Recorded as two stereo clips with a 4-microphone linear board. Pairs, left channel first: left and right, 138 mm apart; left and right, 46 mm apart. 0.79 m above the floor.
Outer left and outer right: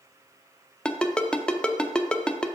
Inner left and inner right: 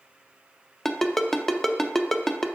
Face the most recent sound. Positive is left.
turn(degrees=5)  # may be behind; listen again after turning